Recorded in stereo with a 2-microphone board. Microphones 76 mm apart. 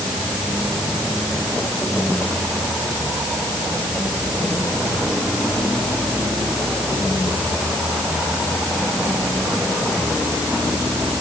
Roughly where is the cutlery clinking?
I don't hear cutlery clinking.